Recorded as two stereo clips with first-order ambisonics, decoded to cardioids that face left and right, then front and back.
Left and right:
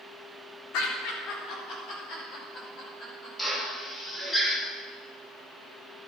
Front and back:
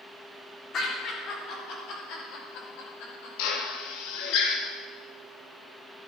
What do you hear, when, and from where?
0.7 s laughter: 60° left, 3.5 m; by 3.3 s 25° left, 6.5 m
3.4 s a drill: 10° left, 2 m